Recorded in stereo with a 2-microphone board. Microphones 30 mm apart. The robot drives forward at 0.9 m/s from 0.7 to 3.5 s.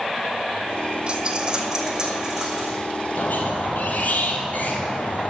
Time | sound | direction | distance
1.1 | a dropped coin | 35° right (ahead or behind) | 1.1 m
3.2 | a squeak | 65° left (ahead or behind) | 1.8 m